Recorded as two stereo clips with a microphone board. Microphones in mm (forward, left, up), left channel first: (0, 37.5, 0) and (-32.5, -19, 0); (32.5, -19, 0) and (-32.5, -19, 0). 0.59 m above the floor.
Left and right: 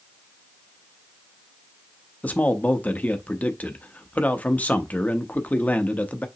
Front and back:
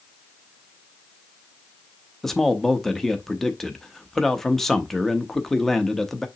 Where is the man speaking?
75° left, 0.7 m.